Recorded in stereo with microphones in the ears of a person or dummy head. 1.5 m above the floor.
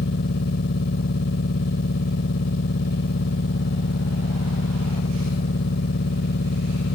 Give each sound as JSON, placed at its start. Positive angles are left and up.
{"t": 0.0, "sound": "a machine running", "side_deg": 60}